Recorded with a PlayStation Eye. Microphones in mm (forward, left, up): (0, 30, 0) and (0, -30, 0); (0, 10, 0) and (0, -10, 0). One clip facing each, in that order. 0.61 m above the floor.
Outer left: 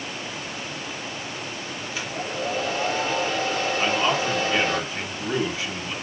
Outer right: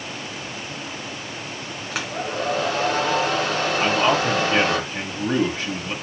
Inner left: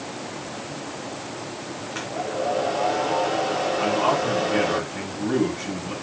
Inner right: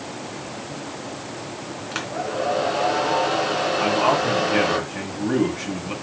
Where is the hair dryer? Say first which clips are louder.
Outer right 4 dB, inner right 2 dB; 70° right (ahead or behind), 3 m.